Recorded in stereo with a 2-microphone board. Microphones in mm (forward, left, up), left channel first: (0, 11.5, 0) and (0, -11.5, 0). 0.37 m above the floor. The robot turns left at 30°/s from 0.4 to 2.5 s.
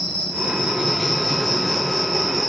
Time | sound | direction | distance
0.0 | an insect | 45° left | 1.2 m